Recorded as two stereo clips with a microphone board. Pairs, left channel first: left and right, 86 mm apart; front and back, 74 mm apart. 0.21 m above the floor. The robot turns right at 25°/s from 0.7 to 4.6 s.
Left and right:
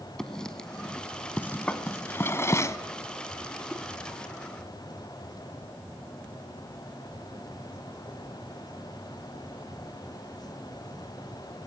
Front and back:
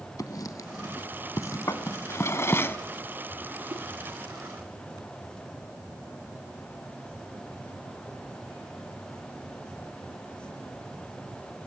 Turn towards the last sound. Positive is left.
turn(degrees=-165)